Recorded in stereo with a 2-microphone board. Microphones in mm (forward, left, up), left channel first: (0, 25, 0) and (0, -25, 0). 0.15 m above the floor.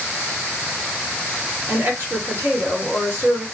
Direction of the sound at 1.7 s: 50° right (ahead or behind).